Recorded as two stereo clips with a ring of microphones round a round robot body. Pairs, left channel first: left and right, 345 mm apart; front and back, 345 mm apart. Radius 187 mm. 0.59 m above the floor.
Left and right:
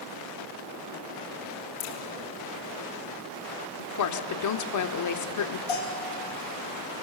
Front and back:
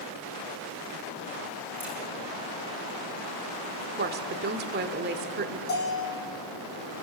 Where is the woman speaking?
120° left, 1.6 m.